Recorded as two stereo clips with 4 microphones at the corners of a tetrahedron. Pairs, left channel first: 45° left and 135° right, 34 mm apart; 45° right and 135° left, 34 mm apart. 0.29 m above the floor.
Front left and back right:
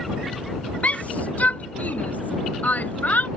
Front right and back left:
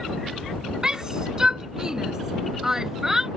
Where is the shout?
75° left; by 3.3 s 65° left.